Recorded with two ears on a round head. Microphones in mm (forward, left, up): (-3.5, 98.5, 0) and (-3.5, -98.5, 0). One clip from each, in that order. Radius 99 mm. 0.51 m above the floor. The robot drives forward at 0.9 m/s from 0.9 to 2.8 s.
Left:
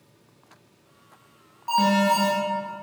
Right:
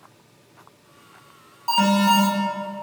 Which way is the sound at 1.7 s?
30° right (ahead or behind).